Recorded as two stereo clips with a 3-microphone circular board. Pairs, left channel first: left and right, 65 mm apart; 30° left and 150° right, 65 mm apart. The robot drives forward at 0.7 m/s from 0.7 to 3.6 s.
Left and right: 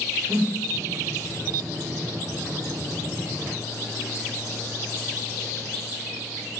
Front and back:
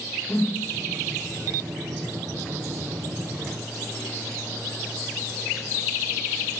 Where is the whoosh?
30° right, 9 m.